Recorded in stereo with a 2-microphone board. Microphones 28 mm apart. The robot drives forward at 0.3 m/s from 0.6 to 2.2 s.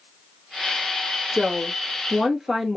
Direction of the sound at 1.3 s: 15° right (ahead or behind).